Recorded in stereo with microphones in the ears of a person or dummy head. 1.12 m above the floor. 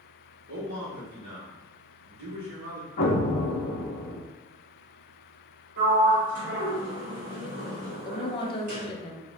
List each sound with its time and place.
0.5 s a man speaking: 45° right (ahead or behind), 1.5 m
3.0 s an explosion: 50° left (ahead or behind), 0.7 m
5.8 s a sliding door: 40° right (ahead or behind), 2.0 m
8.1 s a woman speaking: 25° left (ahead or behind), 0.8 m